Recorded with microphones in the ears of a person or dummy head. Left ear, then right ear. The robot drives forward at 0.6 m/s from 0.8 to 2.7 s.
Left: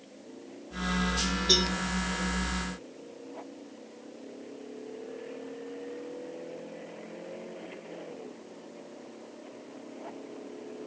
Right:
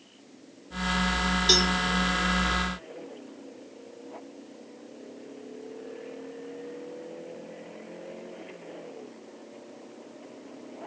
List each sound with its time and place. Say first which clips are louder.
1.5 s a cowbell: right 3 dB; 50° right (ahead or behind), 0.9 m; by 1.7 s 45° right (ahead or behind), 1.0 m